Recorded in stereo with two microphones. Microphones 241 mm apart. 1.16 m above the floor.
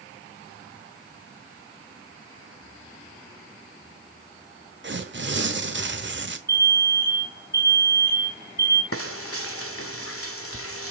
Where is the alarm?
45° left (ahead or behind), 2.5 m.